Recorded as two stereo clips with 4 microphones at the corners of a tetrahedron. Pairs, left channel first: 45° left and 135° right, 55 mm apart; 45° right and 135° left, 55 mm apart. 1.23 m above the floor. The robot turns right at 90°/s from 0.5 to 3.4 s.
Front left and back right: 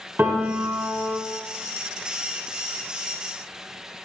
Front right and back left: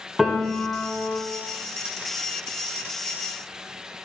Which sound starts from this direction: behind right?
A piano, at 0.2 s.